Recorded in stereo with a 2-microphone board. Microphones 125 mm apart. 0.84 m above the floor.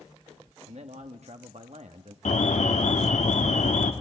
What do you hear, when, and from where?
0.7 s a man speaking: 60° right (ahead or behind), 1.2 m
2.2 s an alarm: 75° left (ahead or behind), 1.7 m